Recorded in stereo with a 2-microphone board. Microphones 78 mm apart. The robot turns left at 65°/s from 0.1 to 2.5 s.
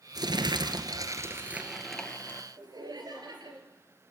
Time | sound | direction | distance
0.1 | crumpling | 70° right | 1.9 m
2.6 | laughter | 60° right (ahead or behind) | 4 m